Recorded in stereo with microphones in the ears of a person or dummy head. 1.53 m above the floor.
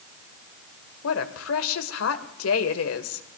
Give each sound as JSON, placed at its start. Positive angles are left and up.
{"t": 1.0, "sound": "a woman speaking", "side_deg": 80, "distance_m": 1.5}